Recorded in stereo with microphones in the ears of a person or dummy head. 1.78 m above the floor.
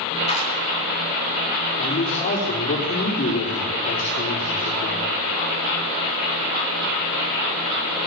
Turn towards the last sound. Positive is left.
turn(degrees=45)  # may be behind; listen again after turning